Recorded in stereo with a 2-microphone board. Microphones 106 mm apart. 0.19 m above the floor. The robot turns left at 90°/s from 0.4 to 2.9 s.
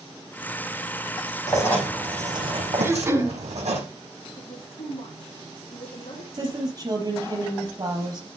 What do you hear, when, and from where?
1.5 s writing: 40° left, 6 m; by 3.8 s 90° right, 6 m
2.8 s throat clearing: 20° right (ahead or behind), 1.7 m; by 3.4 s 25° right (ahead or behind), 1.7 m
4.4 s a woman speaking: 55° left (ahead or behind), 6 m
6.3 s a woman speaking: 40° right (ahead or behind), 4 m